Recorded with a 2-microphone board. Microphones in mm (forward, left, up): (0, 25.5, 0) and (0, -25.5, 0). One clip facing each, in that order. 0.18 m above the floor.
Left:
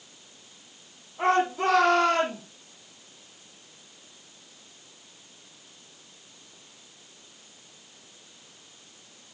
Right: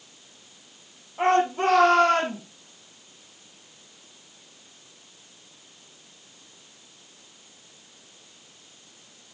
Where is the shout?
50° right (ahead or behind), 5 m.